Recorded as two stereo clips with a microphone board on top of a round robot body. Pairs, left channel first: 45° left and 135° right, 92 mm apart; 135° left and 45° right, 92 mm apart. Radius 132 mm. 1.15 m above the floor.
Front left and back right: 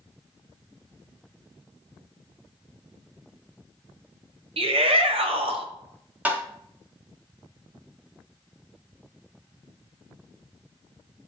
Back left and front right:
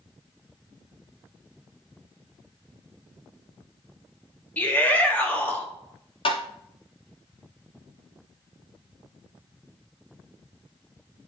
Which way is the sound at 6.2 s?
155° left.